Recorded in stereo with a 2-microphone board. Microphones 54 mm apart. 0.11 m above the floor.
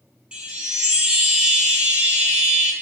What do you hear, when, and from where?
0.3 s a chime: 20° right (ahead or behind), 1.0 m